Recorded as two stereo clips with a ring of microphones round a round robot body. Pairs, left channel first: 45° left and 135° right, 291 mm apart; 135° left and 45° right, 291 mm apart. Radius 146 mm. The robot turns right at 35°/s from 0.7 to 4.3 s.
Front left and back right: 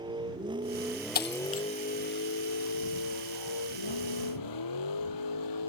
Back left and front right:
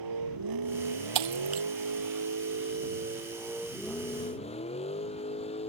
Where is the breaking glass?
15° right; by 1.6 s straight ahead.